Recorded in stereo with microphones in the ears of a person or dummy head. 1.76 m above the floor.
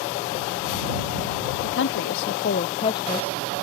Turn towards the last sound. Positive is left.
turn(degrees=5)  # may be behind; listen again after turning